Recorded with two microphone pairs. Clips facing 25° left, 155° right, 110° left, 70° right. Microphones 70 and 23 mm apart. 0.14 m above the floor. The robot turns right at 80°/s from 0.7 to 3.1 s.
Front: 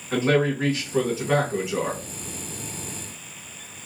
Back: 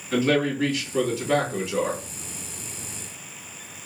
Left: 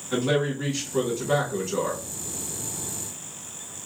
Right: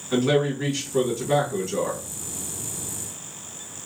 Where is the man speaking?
10° left, 1.5 m; by 2.0 s 120° left, 1.5 m.